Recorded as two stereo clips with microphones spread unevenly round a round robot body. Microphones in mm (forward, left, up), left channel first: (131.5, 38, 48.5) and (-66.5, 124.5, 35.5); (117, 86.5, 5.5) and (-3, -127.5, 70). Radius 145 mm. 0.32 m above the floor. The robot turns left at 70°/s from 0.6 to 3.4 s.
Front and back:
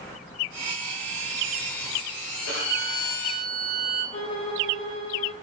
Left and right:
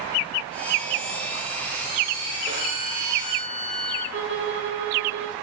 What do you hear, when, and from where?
2.5 s a violin: 60° right, 8.5 m; by 4.0 s 125° right, 8.5 m
4.1 s a violin: 85° right, 1.9 m